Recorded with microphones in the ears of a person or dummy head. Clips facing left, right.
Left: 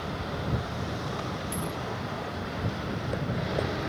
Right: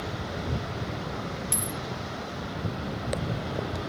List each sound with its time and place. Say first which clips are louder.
1.5 s a dropped coin: left 1 dB; 60° right (ahead or behind)